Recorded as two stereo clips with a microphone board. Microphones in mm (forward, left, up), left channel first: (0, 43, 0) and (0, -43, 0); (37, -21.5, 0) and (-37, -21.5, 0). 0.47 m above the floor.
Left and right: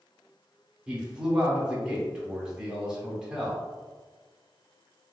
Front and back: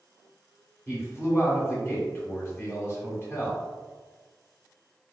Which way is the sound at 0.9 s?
20° right.